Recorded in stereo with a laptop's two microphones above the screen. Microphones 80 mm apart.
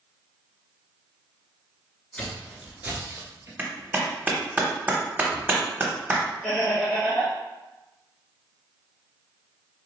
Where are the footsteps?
15° left (ahead or behind), 1.0 m; by 3.5 s 35° right (ahead or behind), 1.5 m.